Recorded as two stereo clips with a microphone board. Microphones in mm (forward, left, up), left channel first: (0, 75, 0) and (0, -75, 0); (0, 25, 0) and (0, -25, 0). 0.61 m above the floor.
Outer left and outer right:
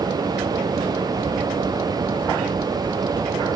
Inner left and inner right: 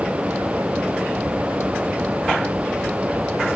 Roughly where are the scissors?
No scissors in this recording.